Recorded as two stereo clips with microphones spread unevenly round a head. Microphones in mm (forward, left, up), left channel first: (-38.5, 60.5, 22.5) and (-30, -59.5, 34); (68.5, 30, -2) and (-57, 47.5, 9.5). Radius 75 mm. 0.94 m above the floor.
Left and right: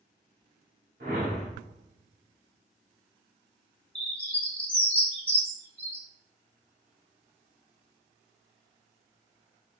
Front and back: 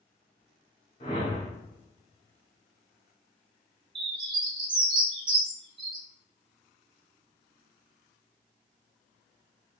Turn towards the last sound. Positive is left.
turn(degrees=175)